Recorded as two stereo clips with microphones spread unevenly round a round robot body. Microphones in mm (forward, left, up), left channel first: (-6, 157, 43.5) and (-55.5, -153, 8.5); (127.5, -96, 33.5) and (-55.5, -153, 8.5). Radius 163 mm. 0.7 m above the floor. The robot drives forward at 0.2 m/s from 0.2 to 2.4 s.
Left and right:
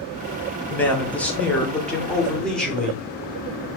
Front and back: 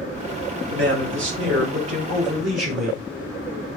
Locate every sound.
0.7 s a man speaking: 165° left, 1.3 m; by 3.0 s 170° left, 1.7 m